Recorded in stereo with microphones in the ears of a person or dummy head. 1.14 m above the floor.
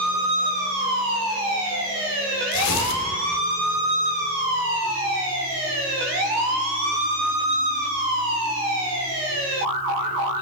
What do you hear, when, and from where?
2.5 s tearing paper: 75° left (ahead or behind), 3 m